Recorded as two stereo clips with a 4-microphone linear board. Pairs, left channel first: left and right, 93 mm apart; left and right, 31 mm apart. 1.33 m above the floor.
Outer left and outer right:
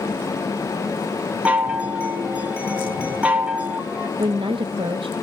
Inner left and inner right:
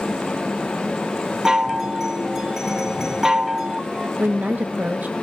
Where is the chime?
15° right (ahead or behind), 1.6 m.